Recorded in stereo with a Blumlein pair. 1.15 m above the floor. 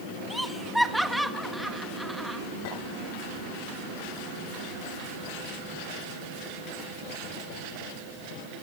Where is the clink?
50° left, 10 m.